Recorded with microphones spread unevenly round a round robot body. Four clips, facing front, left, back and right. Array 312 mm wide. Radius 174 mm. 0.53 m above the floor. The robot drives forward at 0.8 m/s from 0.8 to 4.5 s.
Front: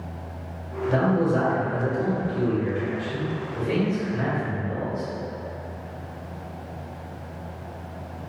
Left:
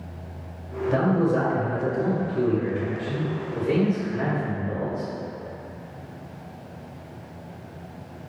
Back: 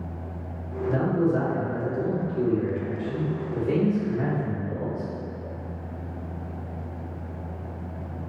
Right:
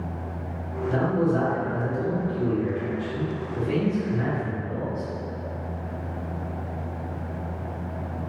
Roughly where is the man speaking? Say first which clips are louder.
Left 2 dB, front 2 dB; ahead left.